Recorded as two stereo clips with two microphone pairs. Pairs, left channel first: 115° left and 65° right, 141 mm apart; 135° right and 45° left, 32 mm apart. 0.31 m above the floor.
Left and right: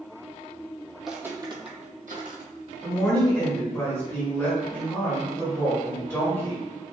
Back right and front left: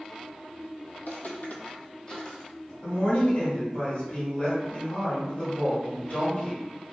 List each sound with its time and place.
1.0 s footsteps: 160° right, 0.7 m; by 2.7 s 60° right, 1.2 m
2.8 s a woman speaking: 175° right, 1.3 m